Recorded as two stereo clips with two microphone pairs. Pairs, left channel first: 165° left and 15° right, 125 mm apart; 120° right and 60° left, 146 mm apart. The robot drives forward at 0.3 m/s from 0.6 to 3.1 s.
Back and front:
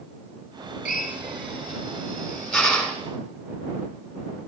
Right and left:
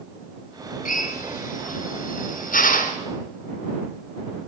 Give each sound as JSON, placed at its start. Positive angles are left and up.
{"t": 0.8, "sound": "a drill", "azimuth_deg": -100, "distance_m": 2.5}